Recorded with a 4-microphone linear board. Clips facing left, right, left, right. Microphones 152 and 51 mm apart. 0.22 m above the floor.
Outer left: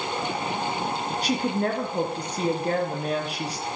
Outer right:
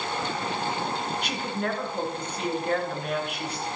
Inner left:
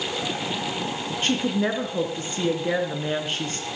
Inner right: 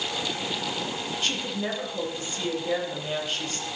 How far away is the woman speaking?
About 3.5 m.